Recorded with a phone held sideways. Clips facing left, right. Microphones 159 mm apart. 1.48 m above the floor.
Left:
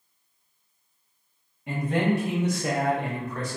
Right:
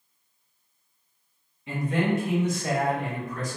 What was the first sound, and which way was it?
A man speaking, 60° left (ahead or behind).